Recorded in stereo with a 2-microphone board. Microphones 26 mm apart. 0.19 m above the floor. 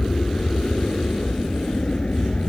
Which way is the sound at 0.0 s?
45° left (ahead or behind).